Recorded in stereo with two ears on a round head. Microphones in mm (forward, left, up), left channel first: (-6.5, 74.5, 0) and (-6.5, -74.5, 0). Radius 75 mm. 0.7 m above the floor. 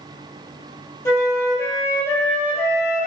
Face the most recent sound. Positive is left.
turn(degrees=15)  # may be behind; listen again after turning